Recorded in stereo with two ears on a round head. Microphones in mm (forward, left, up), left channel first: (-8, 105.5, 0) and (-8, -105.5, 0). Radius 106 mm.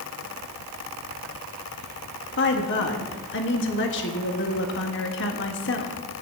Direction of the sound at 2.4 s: 50° left (ahead or behind).